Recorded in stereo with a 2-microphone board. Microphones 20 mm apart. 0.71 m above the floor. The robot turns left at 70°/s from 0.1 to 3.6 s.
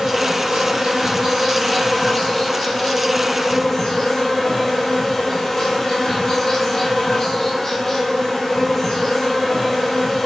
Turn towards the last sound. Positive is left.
turn(degrees=15)